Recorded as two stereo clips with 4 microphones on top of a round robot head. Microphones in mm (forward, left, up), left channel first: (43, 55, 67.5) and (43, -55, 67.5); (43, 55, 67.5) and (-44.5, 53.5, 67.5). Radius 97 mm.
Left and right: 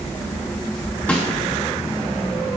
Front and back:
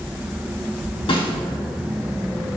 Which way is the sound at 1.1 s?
15° left.